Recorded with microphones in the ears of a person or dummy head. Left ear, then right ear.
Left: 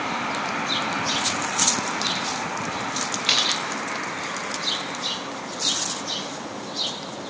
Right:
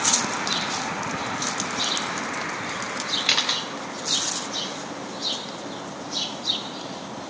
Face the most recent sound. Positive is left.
turn(degrees=-5)  # may be behind; listen again after turning